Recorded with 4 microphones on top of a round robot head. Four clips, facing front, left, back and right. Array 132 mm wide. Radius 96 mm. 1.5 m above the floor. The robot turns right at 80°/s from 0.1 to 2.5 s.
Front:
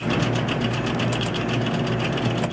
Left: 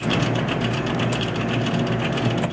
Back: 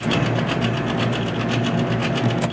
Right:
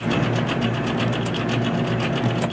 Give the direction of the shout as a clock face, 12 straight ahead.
No shout in this recording.